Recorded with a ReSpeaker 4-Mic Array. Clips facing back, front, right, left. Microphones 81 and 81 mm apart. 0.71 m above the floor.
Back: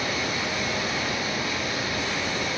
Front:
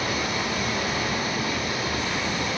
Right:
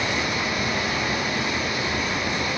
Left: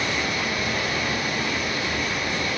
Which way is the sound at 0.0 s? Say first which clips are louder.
Front 1 dB, right 1 dB; 25° right.